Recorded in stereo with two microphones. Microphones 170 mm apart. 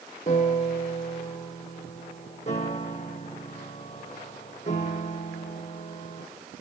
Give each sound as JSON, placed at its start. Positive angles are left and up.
{"t": 0.3, "sound": "a piano", "side_deg": 40, "distance_m": 3.0}